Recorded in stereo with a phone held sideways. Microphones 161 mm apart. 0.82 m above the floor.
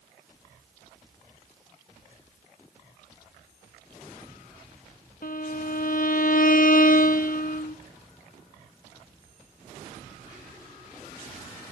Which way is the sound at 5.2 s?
60° left (ahead or behind).